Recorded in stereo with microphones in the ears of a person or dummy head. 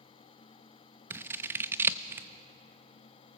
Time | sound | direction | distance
1.1 | scissors | 15° right (ahead or behind) | 0.6 m